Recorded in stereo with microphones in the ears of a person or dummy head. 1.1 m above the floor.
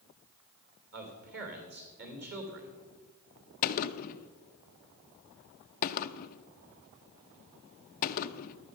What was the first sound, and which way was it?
A man speaking, 55° right (ahead or behind).